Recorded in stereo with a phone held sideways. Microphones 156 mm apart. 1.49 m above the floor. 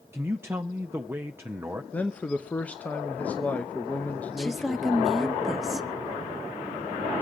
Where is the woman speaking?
Centre (ahead or behind), 0.7 m.